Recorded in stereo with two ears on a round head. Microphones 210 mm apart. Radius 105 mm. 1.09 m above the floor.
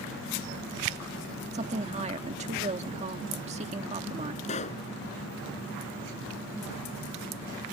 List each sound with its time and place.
1.5 s a woman speaking: 30° right (ahead or behind)
4.4 s a pop: 30° left (ahead or behind)